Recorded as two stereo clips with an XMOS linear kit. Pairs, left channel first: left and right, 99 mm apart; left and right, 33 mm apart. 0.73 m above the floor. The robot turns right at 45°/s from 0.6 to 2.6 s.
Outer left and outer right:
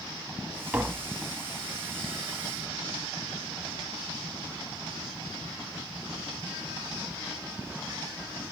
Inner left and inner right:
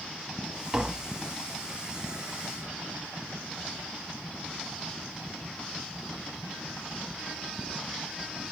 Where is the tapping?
15° right (ahead or behind), 1.0 m; by 1.1 s 5° right (ahead or behind), 1.0 m.